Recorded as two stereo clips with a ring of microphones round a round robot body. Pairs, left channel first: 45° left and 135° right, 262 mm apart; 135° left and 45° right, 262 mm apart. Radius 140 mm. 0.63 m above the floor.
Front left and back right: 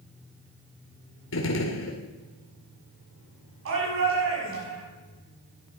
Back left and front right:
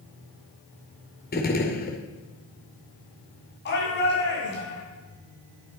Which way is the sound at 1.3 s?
80° left.